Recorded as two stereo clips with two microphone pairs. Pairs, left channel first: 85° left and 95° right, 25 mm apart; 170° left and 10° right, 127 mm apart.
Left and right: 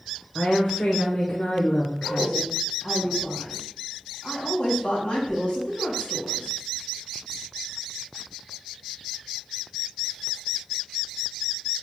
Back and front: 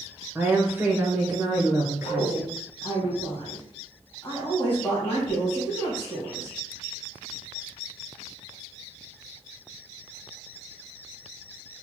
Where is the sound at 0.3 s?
65° left, 0.8 m.